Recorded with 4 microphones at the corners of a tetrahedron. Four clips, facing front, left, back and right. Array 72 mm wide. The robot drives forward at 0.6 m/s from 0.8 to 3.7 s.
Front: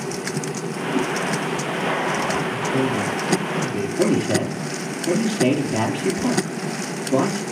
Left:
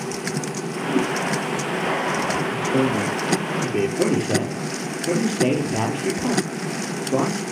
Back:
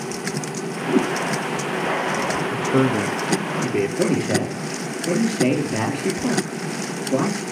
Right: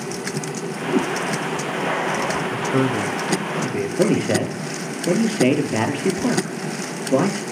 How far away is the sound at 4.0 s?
About 4 m.